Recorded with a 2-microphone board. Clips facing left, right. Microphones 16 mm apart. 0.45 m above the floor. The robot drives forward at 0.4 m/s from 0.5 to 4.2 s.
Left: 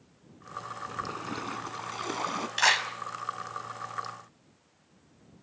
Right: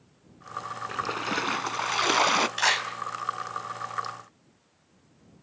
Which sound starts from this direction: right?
A splash, at 0.9 s.